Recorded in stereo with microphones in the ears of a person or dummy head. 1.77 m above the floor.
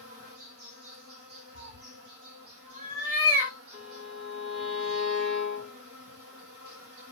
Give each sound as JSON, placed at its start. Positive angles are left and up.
{"t": 0.0, "sound": "an insect", "side_deg": -60, "distance_m": 1.2}
{"t": 1.5, "sound": "a cat meowing", "side_deg": -45, "distance_m": 1.6}
{"t": 3.7, "sound": "a violin", "side_deg": -50, "distance_m": 2.5}